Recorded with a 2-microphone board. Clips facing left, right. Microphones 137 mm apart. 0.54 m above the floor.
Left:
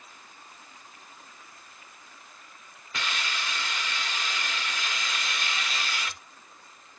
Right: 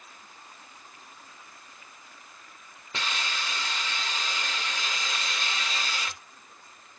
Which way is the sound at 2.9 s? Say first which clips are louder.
Even; 25° right (ahead or behind).